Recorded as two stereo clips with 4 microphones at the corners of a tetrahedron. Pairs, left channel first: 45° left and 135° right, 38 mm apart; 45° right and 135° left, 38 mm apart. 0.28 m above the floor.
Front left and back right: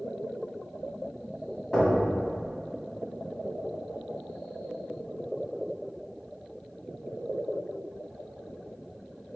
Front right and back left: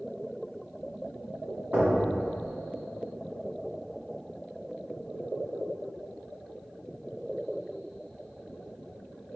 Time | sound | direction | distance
1.7 | knocking | 115° left | 1.9 m